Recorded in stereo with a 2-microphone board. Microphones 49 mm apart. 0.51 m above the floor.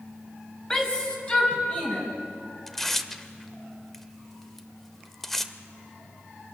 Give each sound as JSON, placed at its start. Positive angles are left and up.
{"t": 0.7, "sound": "a shout", "side_deg": 15, "distance_m": 3.5}
{"t": 2.7, "sound": "tearing paper", "side_deg": 5, "distance_m": 0.8}